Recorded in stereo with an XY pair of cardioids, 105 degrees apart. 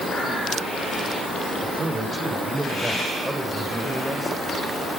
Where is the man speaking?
30° right, 6 m; by 4.4 s straight ahead, 6.5 m.